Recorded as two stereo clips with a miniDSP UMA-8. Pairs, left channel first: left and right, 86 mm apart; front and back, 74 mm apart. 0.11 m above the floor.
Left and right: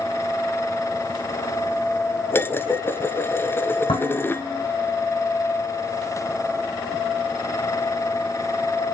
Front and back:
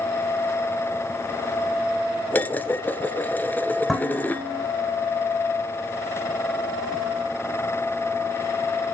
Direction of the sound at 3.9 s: 90° left.